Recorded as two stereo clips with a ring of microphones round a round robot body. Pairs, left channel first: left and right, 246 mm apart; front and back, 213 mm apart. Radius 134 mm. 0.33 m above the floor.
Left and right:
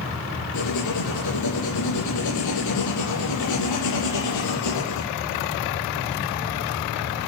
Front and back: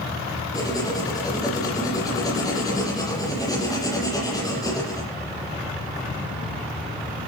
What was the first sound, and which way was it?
Writing, 75° left.